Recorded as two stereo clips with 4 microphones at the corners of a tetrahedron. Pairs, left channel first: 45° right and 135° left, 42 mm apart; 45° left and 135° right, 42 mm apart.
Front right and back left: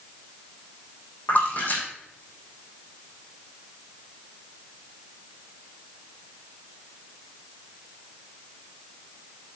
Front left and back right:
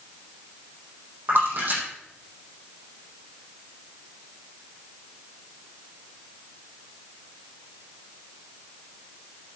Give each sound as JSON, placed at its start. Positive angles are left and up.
{"t": 1.3, "sound": "a splash", "azimuth_deg": -95, "distance_m": 4.0}